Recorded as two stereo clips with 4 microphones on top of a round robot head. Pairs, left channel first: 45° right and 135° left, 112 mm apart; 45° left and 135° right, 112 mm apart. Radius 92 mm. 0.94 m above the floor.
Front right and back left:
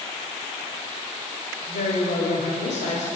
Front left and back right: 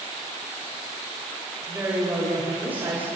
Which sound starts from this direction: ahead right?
A woman speaking, at 1.7 s.